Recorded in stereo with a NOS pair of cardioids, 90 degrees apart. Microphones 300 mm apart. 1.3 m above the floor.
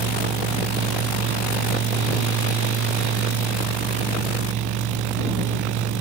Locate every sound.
0.0 s a fan: 65° right